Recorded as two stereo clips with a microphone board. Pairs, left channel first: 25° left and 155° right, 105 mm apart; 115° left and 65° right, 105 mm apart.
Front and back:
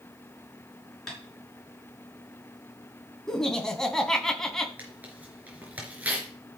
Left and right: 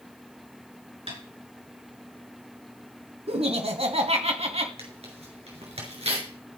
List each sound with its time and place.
1.1 s tapping: 65° right, 6 m
3.3 s laughter: 60° right, 2.5 m
4.8 s tearing paper: 85° right, 4 m